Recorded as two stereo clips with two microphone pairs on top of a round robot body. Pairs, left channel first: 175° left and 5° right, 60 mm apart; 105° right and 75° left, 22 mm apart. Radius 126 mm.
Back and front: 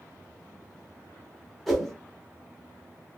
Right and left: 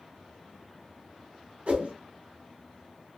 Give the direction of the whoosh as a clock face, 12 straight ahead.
9 o'clock.